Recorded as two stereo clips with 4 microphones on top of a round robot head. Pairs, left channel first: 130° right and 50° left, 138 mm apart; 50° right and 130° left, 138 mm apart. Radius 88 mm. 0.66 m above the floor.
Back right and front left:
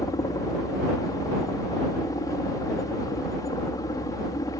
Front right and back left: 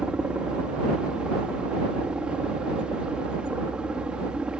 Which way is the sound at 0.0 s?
155° right.